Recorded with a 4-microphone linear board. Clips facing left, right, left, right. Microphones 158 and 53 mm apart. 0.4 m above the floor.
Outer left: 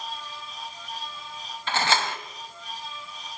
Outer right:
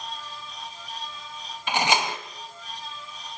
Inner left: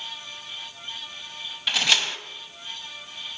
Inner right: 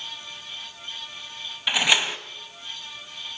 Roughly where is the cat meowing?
No cat meowing in this recording.